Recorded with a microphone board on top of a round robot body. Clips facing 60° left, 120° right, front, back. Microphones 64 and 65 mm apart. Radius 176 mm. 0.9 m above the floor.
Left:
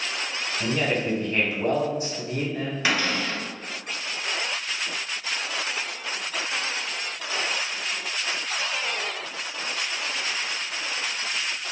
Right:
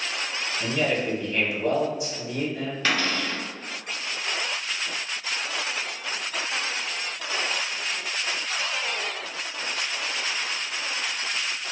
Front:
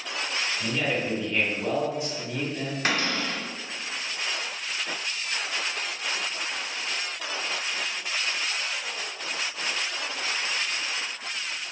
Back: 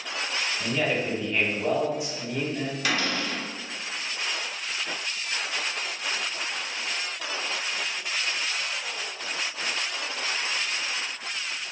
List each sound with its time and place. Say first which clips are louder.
0.6 s a man speaking: even, back 2 dB; 100° left, 1.3 m
2.9 s a cupboard door: even, front 1 dB; 10° right, 1.1 m